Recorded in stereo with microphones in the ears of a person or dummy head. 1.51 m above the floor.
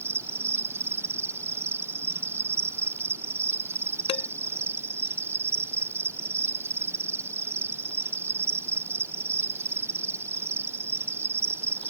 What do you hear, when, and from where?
0.0 s an insect: 5° right (ahead or behind)
4.1 s dishes clattering: 20° left (ahead or behind)